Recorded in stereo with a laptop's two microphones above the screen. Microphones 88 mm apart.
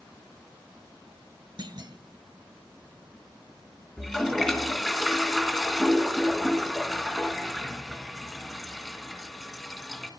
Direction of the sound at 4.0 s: 5° left (ahead or behind).